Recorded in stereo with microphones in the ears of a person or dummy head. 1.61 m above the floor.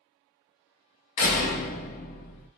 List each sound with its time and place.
1.2 s a door slam: 40° left (ahead or behind), 0.8 m